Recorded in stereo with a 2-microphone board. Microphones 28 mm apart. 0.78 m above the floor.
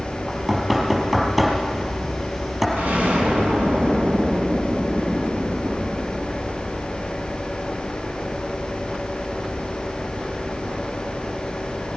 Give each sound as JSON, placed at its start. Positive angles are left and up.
{"t": 0.3, "sound": "knocking", "side_deg": -10, "distance_m": 4.5}
{"t": 2.8, "sound": "an explosion", "side_deg": -75, "distance_m": 4.5}